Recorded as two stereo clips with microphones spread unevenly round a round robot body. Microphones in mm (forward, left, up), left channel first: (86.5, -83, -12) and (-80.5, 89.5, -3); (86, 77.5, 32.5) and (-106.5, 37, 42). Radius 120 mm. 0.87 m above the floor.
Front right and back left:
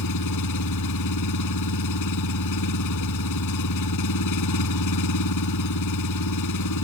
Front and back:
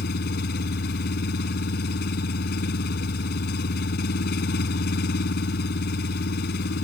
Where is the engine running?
40° right.